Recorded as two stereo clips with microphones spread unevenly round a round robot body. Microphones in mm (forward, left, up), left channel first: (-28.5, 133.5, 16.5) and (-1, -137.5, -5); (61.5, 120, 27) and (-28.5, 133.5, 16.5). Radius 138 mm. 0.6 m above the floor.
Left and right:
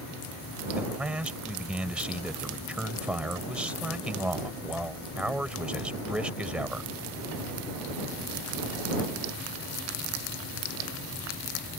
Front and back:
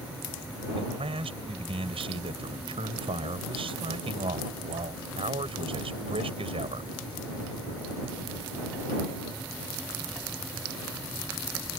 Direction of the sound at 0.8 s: 170° right.